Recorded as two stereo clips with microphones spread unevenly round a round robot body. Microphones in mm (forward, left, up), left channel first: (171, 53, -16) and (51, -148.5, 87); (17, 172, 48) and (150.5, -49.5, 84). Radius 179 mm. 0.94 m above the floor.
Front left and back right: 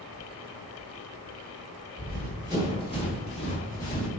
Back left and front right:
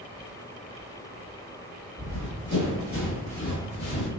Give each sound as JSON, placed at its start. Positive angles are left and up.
{"t": 2.0, "sound": "running footsteps", "azimuth_deg": -95, "distance_m": 1.3}